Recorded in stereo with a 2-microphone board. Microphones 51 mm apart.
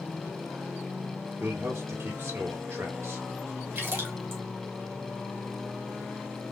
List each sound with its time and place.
1.4 s a man speaking: 55° right (ahead or behind), 2 m
3.8 s a splash: 45° right (ahead or behind), 2.5 m